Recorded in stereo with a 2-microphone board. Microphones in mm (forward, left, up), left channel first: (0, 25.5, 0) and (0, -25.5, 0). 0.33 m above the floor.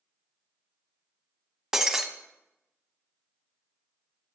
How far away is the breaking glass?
About 0.9 m.